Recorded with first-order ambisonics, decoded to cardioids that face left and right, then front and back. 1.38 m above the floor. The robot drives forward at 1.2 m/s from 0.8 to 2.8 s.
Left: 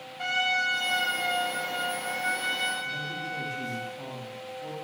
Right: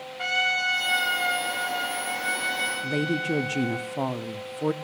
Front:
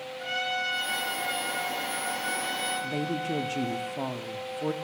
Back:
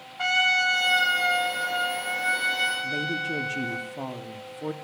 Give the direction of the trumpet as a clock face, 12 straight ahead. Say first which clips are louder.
Right 2 dB, back 9 dB; 6 o'clock.